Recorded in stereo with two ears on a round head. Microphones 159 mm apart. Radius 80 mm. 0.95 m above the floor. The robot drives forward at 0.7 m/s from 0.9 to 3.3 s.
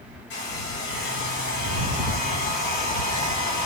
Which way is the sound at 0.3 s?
75° left (ahead or behind).